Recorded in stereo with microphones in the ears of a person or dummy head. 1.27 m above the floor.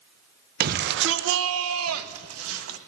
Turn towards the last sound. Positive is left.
turn(degrees=-80)